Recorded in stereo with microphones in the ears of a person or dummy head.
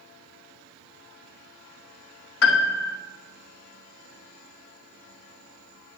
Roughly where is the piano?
Left.